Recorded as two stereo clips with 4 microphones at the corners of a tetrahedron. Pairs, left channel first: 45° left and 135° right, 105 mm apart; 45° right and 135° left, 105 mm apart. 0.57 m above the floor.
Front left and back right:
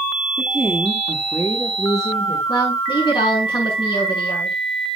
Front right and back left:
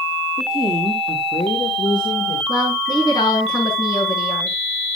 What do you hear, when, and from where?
0.4 s a woman speaking: 65° right, 1.7 m; by 2.4 s 5° right, 2.5 m
2.5 s a woman speaking: 5° left, 6 m